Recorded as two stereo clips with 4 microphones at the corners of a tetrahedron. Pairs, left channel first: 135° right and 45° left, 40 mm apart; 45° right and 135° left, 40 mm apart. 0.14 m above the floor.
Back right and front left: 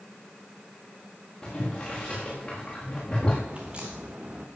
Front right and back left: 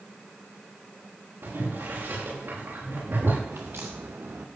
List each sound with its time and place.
1.4 s boiling: 155° left, 7 m
3.5 s a crack: 110° left, 2 m